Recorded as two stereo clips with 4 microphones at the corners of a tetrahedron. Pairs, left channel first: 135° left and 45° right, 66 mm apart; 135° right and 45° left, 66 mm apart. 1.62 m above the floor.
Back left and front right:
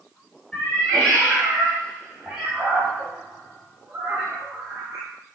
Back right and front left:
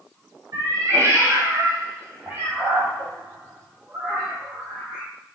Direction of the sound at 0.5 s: 50° left.